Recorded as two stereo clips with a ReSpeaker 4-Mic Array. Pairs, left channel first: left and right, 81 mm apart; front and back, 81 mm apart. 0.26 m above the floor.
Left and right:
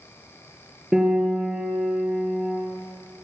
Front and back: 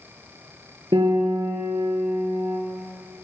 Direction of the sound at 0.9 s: 170° right.